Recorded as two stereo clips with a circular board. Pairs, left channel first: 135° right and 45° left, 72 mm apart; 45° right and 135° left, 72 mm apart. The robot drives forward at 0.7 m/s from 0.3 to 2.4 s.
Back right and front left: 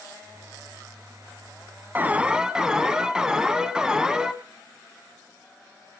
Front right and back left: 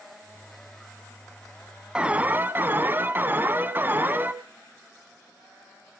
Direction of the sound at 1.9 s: 70° left.